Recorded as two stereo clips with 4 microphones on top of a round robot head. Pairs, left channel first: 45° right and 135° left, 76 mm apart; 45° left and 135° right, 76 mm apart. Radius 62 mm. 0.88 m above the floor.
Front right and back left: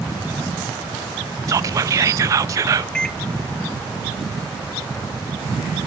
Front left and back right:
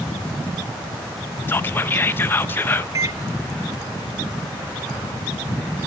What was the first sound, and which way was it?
Whispering, 100° left.